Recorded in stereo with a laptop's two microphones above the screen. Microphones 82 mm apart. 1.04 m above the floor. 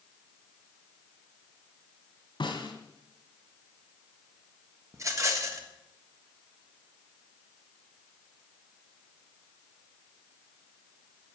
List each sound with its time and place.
2.4 s a snare drum: 75° left (ahead or behind), 2.5 m
4.9 s a rattle: 40° right (ahead or behind), 1.4 m